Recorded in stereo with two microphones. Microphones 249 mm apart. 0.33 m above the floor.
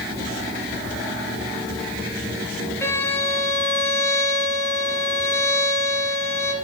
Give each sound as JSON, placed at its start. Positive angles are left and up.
{"t": 2.8, "sound": "a violin", "side_deg": 10, "distance_m": 1.3}